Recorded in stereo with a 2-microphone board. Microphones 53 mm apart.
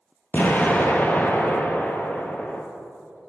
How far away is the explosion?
About 0.7 m.